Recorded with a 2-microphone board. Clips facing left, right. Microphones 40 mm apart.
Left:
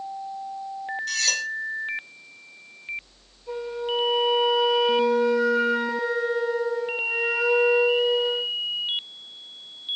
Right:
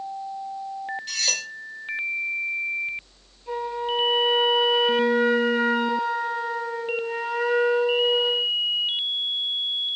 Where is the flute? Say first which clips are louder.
Right 2 dB; 45° right (ahead or behind), 1.3 m.